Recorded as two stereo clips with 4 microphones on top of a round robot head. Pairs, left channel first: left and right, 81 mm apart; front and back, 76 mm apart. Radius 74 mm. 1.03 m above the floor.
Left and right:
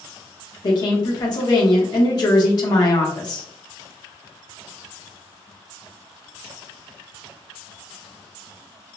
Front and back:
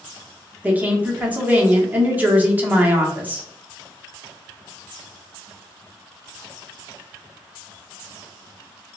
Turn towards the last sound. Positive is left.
turn(degrees=115)